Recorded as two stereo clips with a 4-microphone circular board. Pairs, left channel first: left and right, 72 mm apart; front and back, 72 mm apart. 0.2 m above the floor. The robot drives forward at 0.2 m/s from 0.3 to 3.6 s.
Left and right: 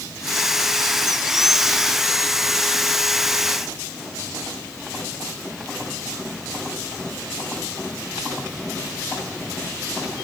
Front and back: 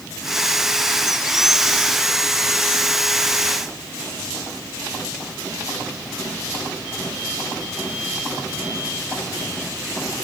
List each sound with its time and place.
Only background noise.